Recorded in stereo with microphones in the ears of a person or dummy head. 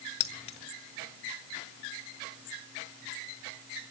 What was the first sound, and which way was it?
Keys jangling, 30° left (ahead or behind).